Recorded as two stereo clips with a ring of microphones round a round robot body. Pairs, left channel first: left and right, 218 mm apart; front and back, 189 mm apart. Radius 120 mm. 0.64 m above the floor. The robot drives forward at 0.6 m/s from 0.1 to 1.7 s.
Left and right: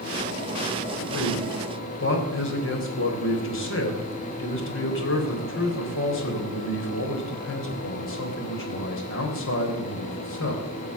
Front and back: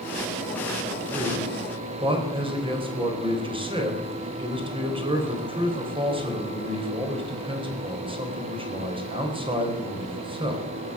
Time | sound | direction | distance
1.1 | a man speaking | 115° left | 3.5 m